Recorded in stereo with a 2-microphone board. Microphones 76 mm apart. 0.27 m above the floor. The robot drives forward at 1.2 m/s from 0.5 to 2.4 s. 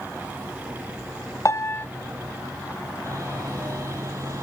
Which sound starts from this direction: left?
A piano, at 1.4 s.